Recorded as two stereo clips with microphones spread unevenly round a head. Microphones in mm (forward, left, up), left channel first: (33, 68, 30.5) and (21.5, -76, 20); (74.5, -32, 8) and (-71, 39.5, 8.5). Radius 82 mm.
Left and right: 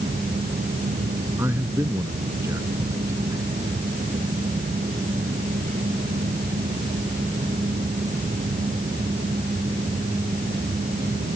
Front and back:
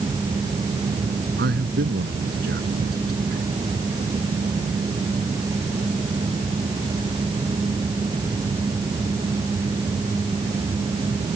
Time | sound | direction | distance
1.4 | a man speaking | 170° right | ?